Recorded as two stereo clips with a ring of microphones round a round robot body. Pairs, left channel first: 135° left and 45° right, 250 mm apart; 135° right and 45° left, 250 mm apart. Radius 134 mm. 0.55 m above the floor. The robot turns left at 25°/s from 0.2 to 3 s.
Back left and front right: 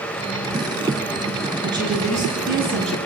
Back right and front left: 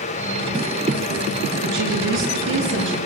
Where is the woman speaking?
30° left, 8 m; by 3.0 s straight ahead, 8 m.